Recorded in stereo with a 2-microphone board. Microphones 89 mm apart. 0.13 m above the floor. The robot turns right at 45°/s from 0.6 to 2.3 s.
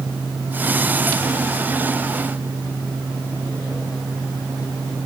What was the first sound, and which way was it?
Only background noise.